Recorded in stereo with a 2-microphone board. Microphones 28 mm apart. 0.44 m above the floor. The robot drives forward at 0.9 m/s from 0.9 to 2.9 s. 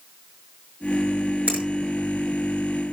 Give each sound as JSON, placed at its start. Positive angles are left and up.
{"t": 1.5, "sound": "a finger snap", "side_deg": -65, "distance_m": 7.5}